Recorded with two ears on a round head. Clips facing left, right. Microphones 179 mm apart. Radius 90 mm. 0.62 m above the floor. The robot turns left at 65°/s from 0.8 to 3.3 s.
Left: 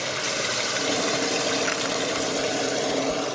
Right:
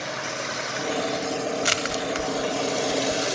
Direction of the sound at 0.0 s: 135° left.